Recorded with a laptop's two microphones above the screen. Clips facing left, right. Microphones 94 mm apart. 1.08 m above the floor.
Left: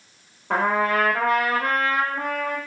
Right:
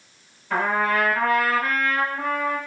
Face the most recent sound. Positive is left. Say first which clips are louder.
# left 1 dB
turn(degrees=65)  # may be behind; listen again after turning